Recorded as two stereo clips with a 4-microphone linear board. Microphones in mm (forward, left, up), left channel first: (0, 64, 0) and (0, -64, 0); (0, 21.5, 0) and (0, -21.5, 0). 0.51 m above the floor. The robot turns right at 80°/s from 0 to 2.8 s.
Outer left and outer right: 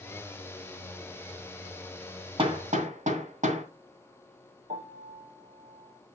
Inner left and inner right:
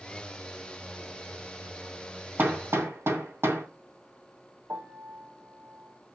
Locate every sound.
2.4 s hammering: 45° right (ahead or behind), 2.5 m; by 3.6 s 75° right (ahead or behind), 2.5 m
4.7 s a piano: 75° right (ahead or behind), 4 m